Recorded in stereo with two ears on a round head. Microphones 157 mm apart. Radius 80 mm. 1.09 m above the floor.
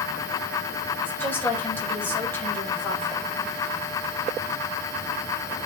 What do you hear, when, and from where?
1.0 s a woman speaking: 10° left (ahead or behind), 4.5 m